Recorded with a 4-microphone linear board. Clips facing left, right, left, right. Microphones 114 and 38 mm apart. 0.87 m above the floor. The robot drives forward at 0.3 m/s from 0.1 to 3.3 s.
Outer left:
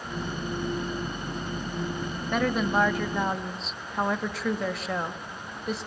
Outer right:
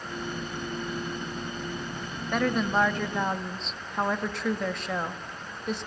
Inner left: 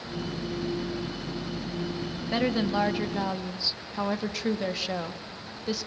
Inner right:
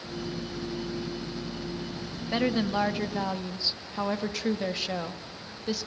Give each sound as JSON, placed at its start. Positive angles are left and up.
{"t": 2.3, "sound": "a woman speaking", "side_deg": 0, "distance_m": 1.4}